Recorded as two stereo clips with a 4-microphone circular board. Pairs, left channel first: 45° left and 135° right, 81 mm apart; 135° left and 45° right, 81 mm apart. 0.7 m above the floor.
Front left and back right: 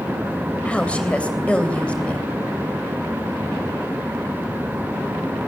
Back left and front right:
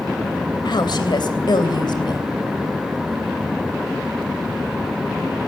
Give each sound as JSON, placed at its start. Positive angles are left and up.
{"t": 0.7, "sound": "a woman speaking", "azimuth_deg": 120, "distance_m": 3.0}